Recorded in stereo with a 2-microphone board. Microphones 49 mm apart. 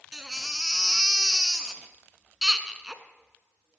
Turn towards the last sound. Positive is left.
turn(degrees=-10)  # may be behind; listen again after turning